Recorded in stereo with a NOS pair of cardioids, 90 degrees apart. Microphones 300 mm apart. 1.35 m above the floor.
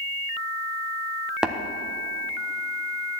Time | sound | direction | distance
1.4 | tapping | 5° right | 1.1 m